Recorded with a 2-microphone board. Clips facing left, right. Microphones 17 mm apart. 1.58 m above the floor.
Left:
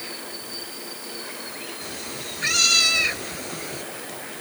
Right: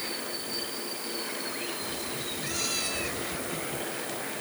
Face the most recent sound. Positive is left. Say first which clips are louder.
# left 1 dB
turn(degrees=60)  # may be behind; listen again after turning